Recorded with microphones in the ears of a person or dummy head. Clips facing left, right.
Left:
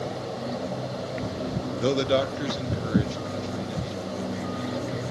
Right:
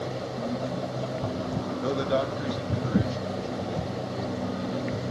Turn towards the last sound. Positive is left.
turn(degrees=30)  # may be behind; listen again after turning